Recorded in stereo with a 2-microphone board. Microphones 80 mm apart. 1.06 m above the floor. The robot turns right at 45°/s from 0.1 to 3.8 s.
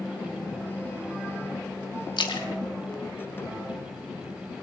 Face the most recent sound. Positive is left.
turn(degrees=35)  # may be behind; listen again after turning